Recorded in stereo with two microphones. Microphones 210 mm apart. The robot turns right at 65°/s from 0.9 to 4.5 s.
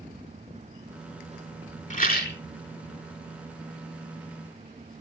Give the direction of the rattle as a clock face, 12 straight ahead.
11 o'clock.